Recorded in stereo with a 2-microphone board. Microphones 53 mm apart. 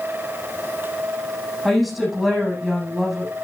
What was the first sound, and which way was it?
A woman speaking, centre (ahead or behind).